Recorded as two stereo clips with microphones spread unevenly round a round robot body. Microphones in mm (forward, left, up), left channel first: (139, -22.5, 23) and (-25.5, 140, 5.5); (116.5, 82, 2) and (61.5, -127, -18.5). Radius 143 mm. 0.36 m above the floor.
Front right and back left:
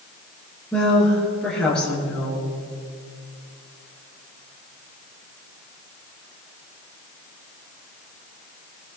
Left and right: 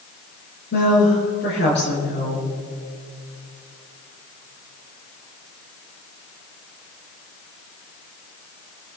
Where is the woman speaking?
40° left, 6.5 m.